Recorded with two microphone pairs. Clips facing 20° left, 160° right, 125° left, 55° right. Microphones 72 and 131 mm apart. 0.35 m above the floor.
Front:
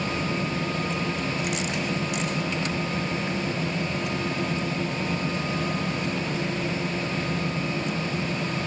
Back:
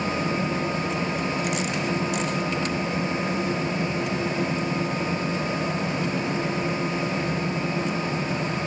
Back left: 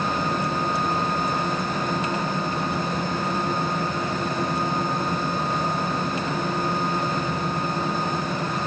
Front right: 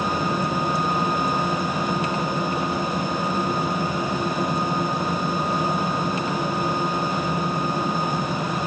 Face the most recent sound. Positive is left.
No sound to turn to.